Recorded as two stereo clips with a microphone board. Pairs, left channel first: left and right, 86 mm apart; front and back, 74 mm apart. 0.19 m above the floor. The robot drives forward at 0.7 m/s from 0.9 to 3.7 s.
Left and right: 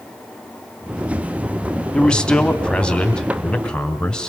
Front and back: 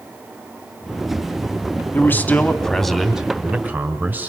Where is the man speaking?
20° left, 1.4 m; by 4.3 s 155° left, 1.4 m.